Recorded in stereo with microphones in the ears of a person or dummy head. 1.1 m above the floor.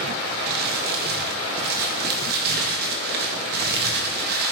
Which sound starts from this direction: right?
Crumpling, at 0.5 s.